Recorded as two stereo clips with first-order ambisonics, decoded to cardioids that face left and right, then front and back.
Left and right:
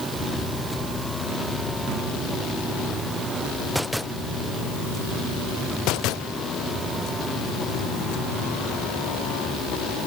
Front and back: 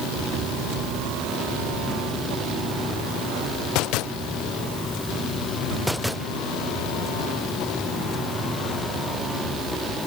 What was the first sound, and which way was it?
Only background noise.